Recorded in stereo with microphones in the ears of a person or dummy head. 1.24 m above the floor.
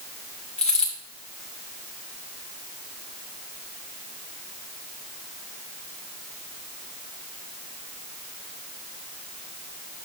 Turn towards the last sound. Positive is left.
turn(degrees=5)  # may be behind; listen again after turning